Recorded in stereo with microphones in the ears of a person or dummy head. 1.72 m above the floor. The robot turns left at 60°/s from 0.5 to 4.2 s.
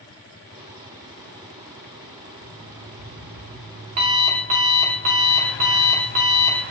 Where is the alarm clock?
25° right, 1.0 m; by 6.6 s 130° right, 1.0 m.